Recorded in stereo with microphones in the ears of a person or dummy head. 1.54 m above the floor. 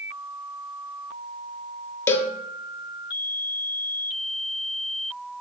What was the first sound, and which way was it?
A cowbell, 10° left (ahead or behind).